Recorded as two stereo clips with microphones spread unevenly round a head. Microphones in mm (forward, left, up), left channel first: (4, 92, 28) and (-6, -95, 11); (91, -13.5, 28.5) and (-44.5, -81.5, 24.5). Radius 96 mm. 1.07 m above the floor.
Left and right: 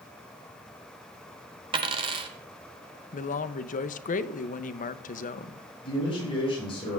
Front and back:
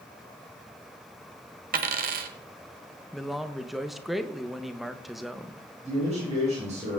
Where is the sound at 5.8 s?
150° left, 6.5 m.